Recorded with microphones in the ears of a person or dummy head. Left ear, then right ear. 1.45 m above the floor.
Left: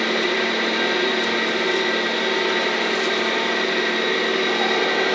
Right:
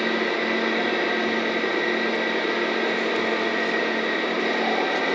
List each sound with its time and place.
0.0 s a machine running: 25° left (ahead or behind), 1.3 m